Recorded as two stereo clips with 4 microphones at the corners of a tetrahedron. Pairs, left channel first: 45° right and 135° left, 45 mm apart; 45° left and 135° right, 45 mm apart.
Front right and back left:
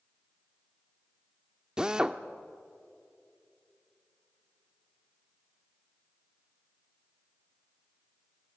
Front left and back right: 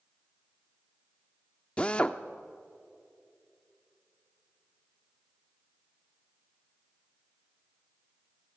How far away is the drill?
About 0.8 m.